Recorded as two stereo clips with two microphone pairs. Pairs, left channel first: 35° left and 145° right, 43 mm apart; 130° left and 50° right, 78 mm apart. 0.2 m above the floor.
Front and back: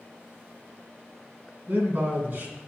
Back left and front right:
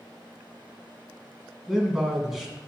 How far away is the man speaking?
About 2 m.